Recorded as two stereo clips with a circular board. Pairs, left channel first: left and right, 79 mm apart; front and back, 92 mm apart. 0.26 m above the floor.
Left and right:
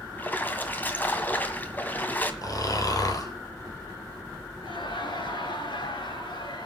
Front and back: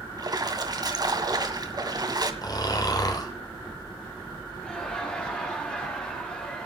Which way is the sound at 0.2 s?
155° left.